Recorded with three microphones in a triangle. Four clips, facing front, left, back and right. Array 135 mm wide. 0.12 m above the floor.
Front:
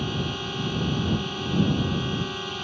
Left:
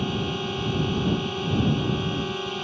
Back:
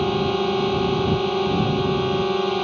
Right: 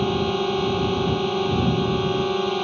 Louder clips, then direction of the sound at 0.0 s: Right 6 dB, back 10 dB; 150° right.